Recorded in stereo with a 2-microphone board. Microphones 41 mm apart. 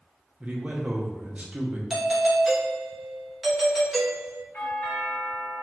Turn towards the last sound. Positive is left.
turn(degrees=55)  # may be behind; listen again after turning